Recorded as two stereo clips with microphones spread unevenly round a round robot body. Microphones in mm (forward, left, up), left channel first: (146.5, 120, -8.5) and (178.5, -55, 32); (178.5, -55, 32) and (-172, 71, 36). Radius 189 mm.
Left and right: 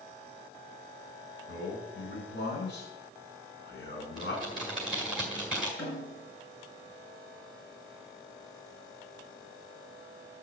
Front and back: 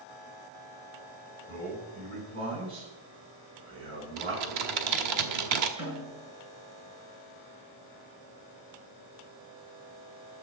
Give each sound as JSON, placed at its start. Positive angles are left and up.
{"t": 1.5, "sound": "a man speaking", "azimuth_deg": 100, "distance_m": 7.5}
{"t": 4.2, "sound": "typing on a keyboard", "azimuth_deg": -170, "distance_m": 1.4}
{"t": 5.8, "sound": "a snare drum", "azimuth_deg": 115, "distance_m": 7.0}